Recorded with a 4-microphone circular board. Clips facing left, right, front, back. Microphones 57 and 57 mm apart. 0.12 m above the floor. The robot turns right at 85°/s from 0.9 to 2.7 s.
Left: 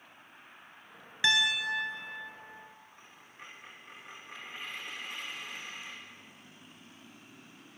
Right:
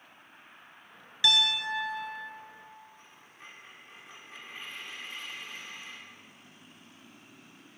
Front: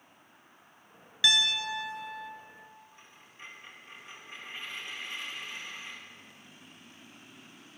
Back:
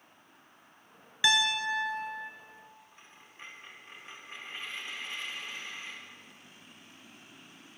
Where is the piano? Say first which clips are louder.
Even, back 1 dB; 125° left, 1.2 m; by 2.3 s 145° right, 1.2 m.